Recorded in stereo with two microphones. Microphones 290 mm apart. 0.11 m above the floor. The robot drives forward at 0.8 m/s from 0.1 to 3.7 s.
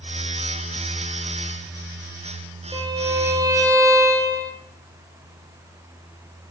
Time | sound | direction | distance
2.7 | a violin | 15° right (ahead or behind) | 1.7 m